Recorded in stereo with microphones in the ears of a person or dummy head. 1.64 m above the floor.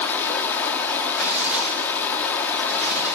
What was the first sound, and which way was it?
Running water, 20° left (ahead or behind).